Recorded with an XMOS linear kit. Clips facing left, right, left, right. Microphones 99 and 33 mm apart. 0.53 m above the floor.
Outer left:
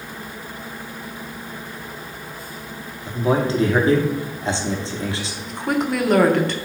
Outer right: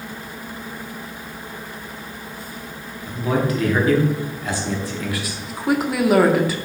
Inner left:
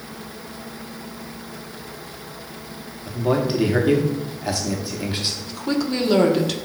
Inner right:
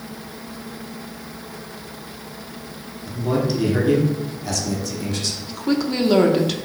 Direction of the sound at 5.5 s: 5° right (ahead or behind).